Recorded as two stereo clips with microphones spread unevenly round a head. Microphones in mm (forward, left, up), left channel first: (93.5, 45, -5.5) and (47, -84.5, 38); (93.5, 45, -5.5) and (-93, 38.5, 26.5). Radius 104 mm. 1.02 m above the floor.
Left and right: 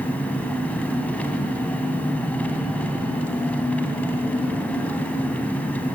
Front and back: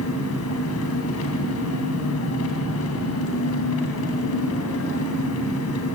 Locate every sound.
0.0 s an engine running: 15° right, 3 m